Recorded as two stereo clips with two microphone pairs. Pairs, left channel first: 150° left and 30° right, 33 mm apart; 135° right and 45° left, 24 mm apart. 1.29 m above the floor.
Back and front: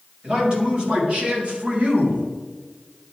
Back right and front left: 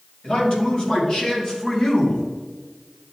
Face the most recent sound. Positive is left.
turn(degrees=-70)